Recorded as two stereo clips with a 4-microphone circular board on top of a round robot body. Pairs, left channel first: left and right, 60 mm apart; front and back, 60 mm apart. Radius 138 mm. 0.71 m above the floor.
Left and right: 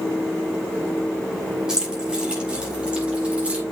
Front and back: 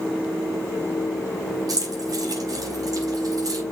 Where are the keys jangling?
170° right, 5.5 m; by 3.6 s 160° right, 4.5 m.